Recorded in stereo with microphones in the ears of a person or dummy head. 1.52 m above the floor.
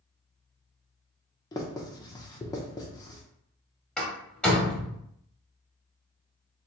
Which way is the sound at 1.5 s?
15° left (ahead or behind).